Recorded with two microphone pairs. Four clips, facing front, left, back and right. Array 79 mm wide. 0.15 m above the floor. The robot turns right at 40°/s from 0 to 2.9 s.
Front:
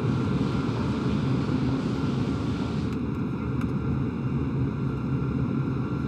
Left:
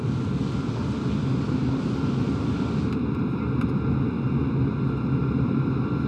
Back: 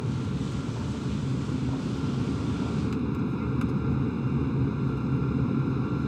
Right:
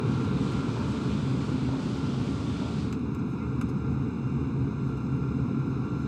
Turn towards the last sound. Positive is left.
turn(degrees=90)